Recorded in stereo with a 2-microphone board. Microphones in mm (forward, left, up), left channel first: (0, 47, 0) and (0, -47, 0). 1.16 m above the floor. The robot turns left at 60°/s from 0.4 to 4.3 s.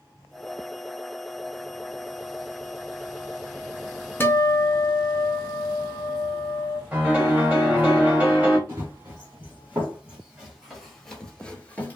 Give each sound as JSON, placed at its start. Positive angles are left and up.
{"t": 4.2, "sound": "a guitar", "side_deg": 25, "distance_m": 0.6}
{"t": 6.9, "sound": "a piano", "side_deg": -20, "distance_m": 1.6}
{"t": 8.7, "sound": "running footsteps", "side_deg": -30, "distance_m": 2.5}